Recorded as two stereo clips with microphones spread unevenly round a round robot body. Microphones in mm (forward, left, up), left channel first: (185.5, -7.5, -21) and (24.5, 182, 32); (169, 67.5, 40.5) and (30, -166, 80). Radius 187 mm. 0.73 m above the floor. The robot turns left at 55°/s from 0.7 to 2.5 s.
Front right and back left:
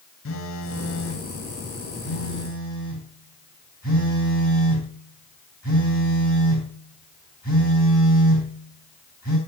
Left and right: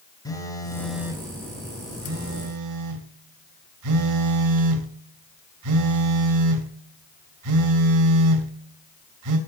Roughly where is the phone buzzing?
Ahead.